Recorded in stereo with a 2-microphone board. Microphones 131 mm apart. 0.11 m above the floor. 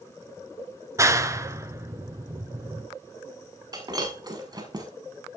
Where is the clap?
25° right (ahead or behind), 1.0 m.